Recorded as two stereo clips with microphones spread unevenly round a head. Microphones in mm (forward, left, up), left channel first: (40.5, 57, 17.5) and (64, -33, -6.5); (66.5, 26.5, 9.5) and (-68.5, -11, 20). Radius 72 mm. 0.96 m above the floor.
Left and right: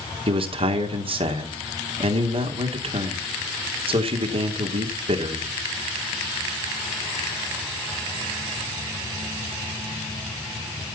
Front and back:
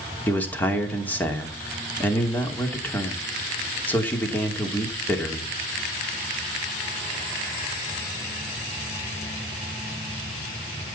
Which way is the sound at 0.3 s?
65° right.